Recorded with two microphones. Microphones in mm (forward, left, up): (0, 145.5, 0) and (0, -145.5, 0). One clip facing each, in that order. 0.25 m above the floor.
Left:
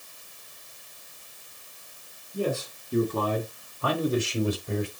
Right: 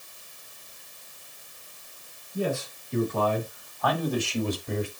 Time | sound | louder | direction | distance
2.3 | a man speaking | even | 45° left (ahead or behind) | 2.5 m